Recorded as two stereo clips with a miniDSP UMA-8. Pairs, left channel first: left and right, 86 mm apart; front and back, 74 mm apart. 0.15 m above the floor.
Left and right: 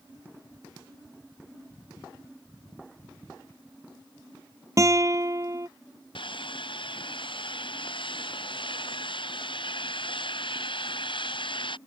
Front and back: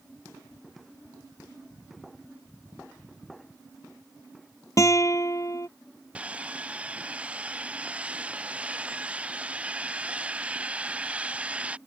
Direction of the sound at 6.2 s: 110° left.